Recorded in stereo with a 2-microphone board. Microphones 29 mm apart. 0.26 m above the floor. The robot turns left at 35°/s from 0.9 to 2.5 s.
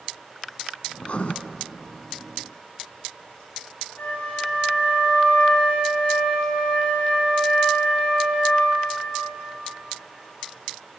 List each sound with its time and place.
1.0 s writing: 45° left (ahead or behind), 1.3 m; by 1.3 s 55° left (ahead or behind), 1.3 m
4.0 s a flute: 60° left (ahead or behind), 9 m